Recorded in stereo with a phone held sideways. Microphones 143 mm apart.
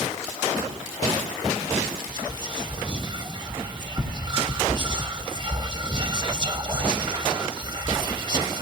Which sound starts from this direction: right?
Whispering, at 2.1 s.